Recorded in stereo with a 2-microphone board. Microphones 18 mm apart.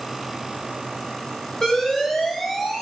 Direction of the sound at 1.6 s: 25° left (ahead or behind).